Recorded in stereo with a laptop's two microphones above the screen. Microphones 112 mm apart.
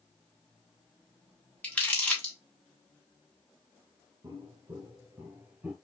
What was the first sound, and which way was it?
Crumpling, 10° left (ahead or behind).